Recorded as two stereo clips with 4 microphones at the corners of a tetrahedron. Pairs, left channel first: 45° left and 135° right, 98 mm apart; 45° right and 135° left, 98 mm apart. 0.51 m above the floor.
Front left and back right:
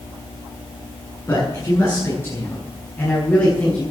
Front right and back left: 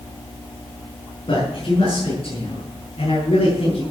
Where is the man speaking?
15° right, 7.5 m; by 3.8 s 30° right, 8 m.